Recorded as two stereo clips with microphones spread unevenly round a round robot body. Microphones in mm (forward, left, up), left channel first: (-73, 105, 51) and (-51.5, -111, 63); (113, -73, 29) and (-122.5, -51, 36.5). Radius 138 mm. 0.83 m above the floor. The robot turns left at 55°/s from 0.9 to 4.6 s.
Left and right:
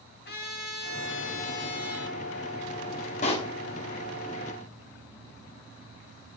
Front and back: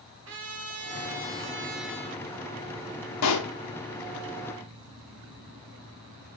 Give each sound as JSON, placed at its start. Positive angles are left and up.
{"t": 0.2, "sound": "a trumpet", "azimuth_deg": 140, "distance_m": 2.0}
{"t": 3.2, "sound": "a pop", "azimuth_deg": 30, "distance_m": 0.8}